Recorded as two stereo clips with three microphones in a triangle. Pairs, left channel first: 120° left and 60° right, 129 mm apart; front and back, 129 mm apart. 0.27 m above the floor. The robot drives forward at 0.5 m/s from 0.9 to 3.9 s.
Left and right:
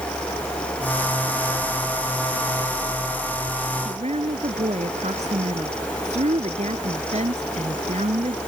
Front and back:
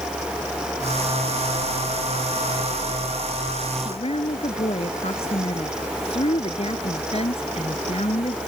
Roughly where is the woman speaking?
Ahead right.